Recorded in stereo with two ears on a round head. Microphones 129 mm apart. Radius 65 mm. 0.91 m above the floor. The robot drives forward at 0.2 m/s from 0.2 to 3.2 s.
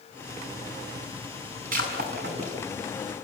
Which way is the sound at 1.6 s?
65° right (ahead or behind).